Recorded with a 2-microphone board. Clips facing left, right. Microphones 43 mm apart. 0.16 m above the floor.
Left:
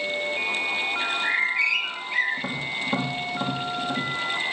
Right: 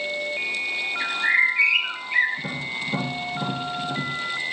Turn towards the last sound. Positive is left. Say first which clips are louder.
# left 1 dB
turn(degrees=35)  # may be behind; listen again after turning